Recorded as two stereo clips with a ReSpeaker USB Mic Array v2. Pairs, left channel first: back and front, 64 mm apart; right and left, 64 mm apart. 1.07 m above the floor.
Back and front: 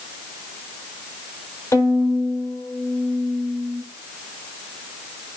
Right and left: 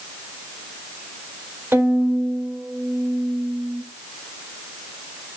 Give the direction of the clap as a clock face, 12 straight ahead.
No clap in this recording.